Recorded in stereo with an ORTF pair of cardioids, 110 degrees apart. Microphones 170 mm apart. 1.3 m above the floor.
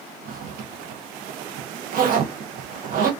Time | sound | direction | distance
0.2 | a zipper | 60° right | 0.7 m